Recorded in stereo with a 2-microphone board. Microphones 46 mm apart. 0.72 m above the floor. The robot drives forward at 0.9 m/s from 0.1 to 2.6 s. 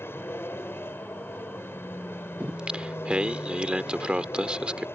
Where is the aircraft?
60° left (ahead or behind).